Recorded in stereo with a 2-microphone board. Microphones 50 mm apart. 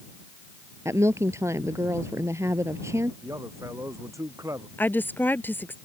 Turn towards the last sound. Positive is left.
turn(degrees=40)  # may be behind; listen again after turning